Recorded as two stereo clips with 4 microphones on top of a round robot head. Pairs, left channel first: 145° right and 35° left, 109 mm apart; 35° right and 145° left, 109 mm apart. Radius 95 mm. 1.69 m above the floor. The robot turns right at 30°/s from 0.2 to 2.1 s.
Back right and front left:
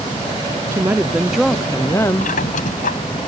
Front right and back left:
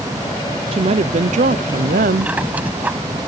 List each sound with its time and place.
0.7 s a woman speaking: 105° left; by 2.4 s 145° left
2.2 s a squeak: 140° right